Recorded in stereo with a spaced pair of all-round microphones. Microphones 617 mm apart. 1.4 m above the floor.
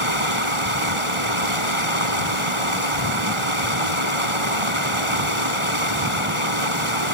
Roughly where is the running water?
Right.